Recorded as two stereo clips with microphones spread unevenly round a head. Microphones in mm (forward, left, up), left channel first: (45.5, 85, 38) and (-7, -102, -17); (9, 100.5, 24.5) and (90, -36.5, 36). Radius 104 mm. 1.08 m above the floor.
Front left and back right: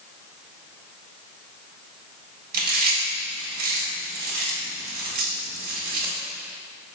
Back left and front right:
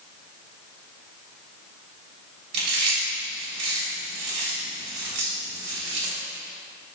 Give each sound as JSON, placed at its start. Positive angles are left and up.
{"t": 2.5, "sound": "chewing", "azimuth_deg": -60, "distance_m": 1.7}